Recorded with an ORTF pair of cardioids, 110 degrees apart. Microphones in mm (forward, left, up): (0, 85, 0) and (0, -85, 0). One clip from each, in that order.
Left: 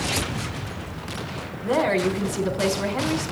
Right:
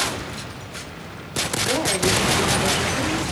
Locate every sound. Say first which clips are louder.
1.6 s a woman speaking: left 2 dB; 25° left, 4 m